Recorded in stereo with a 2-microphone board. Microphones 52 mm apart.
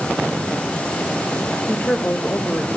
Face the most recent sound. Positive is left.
turn(degrees=30)  # may be behind; listen again after turning